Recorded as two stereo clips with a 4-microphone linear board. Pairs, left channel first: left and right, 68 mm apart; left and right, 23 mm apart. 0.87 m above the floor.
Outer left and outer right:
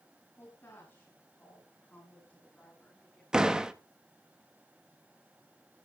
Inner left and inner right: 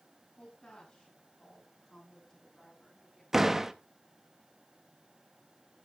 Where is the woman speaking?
35° left (ahead or behind), 7.5 m; by 3.2 s 10° left (ahead or behind), 7 m.